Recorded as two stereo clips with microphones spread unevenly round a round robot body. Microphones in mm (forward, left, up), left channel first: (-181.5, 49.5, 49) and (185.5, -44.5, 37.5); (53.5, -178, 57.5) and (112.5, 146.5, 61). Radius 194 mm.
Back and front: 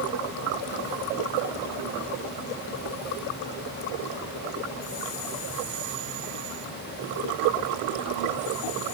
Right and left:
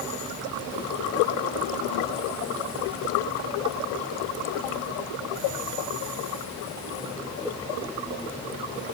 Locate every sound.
Only background noise.